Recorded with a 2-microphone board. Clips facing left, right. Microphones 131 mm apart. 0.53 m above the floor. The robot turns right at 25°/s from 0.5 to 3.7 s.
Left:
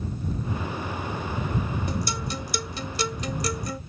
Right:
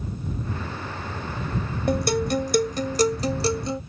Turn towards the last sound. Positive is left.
turn(degrees=-30)